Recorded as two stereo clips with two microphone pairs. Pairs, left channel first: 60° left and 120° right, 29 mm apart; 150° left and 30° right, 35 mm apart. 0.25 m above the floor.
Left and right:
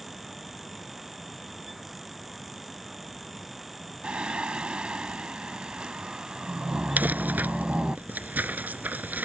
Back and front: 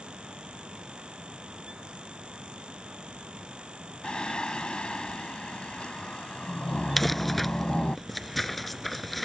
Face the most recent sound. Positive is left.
turn(degrees=-125)